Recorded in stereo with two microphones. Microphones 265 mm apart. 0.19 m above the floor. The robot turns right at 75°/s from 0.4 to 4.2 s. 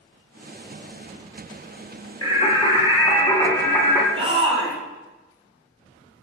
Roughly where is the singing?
Centre.